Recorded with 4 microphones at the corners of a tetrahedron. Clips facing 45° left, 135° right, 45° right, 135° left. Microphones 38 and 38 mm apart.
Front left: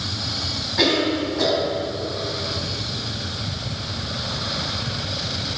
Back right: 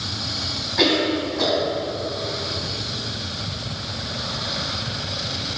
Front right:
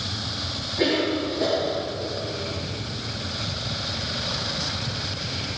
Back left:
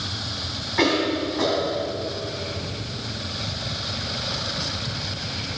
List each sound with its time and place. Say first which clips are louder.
0.8 s a cough: even, back left 2 dB; 140° left, 4 m